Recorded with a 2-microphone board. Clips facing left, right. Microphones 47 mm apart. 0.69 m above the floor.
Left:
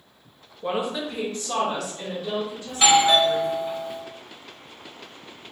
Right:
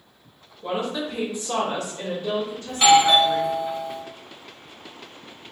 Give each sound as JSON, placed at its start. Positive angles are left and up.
{"t": 0.6, "sound": "a woman speaking", "side_deg": 20, "distance_m": 0.8}
{"t": 2.7, "sound": "a doorbell", "side_deg": 0, "distance_m": 0.9}